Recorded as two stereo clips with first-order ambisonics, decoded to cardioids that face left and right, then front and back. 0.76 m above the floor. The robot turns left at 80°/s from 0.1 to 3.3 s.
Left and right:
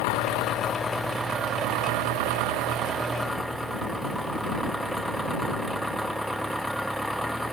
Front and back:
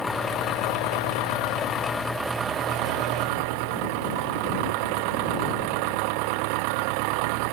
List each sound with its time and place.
0.0 s an engine running: 80° left; by 7.5 s straight behind